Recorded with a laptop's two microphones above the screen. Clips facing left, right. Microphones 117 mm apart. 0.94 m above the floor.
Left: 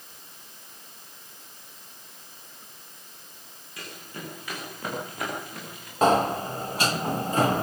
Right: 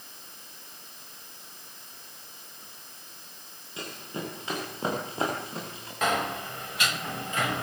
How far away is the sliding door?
About 1.0 m.